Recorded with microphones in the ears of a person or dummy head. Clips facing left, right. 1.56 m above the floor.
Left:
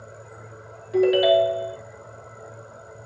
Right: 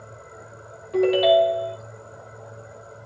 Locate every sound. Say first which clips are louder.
0.9 s a ringtone: even; 5° left (ahead or behind), 1.8 m